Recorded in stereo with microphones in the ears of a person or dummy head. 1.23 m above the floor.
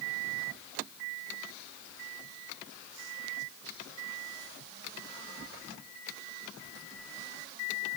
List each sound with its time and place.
Only background noise.